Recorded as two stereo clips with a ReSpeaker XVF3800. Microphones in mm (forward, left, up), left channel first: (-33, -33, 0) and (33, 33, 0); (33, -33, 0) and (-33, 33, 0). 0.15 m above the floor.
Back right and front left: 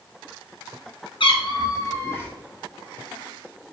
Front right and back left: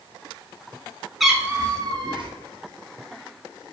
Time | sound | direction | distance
1.2 | a cat meowing | 135° right | 0.7 m